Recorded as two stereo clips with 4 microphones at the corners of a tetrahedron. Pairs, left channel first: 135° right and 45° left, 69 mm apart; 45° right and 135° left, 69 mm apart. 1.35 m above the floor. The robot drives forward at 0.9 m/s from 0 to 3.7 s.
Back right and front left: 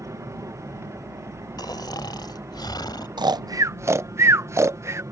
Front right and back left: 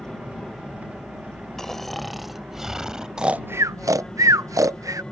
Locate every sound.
0.0 s an aircraft: 35° left; by 5.1 s 30° left
1.6 s snoring: 130° right; by 3.1 s 145° right
3.2 s snoring: 55° left; by 5.0 s 95° left